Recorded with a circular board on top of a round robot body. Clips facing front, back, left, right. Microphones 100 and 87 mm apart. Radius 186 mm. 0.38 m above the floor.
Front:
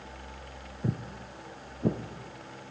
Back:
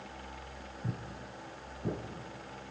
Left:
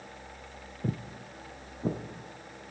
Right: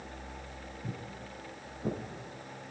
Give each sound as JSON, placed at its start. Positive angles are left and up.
{"t": 0.8, "sound": "footsteps", "azimuth_deg": 50, "distance_m": 0.5}